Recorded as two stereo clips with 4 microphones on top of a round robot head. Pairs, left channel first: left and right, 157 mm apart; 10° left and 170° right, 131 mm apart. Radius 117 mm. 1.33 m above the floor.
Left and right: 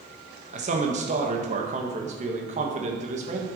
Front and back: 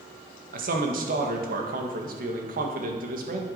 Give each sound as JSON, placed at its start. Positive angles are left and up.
{"t": 0.5, "sound": "a man speaking", "azimuth_deg": -145, "distance_m": 1.7}